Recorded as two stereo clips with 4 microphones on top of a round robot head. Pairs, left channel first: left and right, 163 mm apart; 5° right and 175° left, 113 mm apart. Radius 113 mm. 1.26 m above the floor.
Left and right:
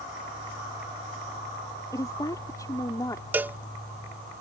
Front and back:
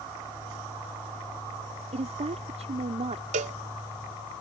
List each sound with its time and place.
1.9 s a woman speaking: 160° left
3.3 s a cowbell: 170° right